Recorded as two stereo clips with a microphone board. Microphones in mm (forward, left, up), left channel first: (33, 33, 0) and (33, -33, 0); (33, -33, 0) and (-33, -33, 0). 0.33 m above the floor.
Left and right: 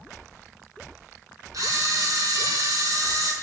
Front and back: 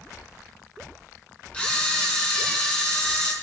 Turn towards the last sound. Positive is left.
turn(degrees=-70)